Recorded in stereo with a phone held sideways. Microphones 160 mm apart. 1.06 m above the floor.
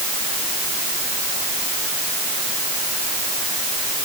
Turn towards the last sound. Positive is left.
No sound to turn to.